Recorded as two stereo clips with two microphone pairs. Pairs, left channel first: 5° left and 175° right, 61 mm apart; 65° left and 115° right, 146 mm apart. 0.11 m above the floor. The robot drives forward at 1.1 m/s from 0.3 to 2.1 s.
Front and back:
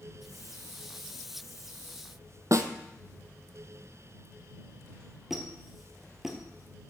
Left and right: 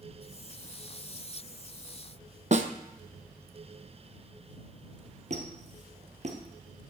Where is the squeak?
90° right, 1.5 m.